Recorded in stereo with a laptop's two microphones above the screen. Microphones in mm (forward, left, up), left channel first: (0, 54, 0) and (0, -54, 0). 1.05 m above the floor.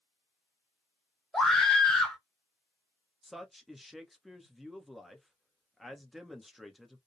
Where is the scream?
5° left (ahead or behind), 0.8 m.